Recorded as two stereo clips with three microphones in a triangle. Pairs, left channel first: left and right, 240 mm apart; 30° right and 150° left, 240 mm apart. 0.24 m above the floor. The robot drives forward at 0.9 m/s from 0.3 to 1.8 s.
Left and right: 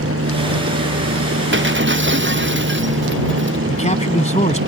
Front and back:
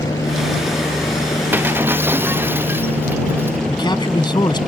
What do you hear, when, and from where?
0.0 s a helicopter: 105° right; by 4.7 s 120° right
1.5 s breaking glass: 130° right
3.7 s a man speaking: 35° left